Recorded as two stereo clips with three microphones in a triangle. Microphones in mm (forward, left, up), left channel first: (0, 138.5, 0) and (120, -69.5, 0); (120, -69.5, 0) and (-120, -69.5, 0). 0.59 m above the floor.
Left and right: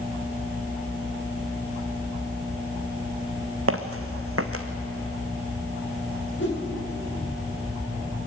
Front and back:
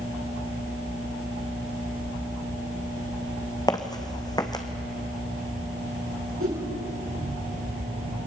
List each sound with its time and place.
3.7 s footsteps: 75° right, 1.8 m
6.4 s a whoosh: 155° left, 9 m